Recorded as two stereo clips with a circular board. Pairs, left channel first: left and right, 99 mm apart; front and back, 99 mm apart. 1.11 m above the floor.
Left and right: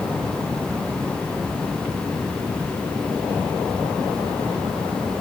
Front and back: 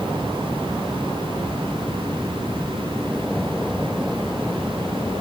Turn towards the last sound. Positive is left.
No sound to turn to.